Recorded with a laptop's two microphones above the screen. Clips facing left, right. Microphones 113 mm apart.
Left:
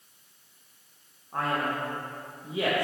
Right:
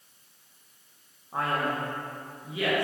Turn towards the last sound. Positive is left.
turn(degrees=35)  # may be behind; listen again after turning